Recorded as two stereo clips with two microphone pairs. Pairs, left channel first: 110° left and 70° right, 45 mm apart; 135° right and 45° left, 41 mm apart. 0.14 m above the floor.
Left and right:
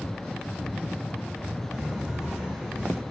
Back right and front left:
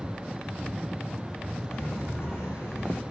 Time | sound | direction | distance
1.7 | footsteps | 135° right | 5.5 m